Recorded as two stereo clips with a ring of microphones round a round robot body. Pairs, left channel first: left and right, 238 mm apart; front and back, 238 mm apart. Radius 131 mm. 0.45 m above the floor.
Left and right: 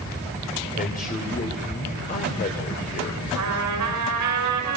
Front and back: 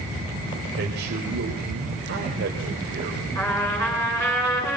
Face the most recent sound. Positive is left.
turn(degrees=-80)